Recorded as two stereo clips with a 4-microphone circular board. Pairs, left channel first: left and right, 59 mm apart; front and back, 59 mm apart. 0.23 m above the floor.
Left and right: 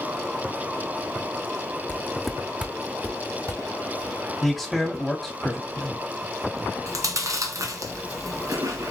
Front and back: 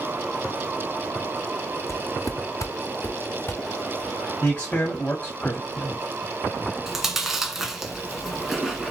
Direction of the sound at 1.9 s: 30° left.